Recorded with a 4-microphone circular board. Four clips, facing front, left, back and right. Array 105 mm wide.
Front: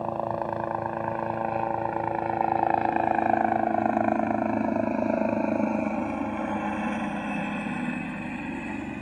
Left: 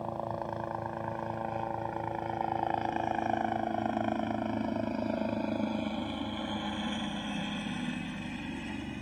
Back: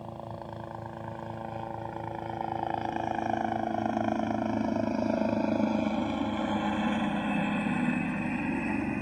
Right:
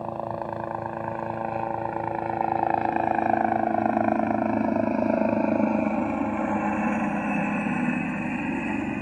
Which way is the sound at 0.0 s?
25° right.